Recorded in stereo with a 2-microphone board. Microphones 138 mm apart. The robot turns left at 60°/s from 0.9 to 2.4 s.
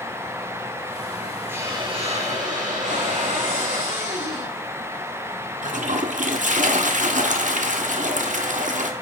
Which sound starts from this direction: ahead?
A hiss, at 1.5 s.